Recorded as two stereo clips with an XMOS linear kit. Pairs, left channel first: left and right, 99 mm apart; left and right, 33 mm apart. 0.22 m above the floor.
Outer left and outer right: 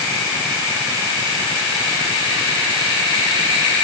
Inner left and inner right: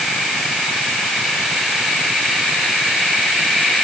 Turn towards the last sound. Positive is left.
No sound to turn to.